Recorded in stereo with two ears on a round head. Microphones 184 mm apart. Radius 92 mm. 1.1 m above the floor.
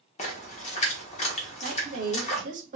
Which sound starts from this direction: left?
A splash, at 0.2 s.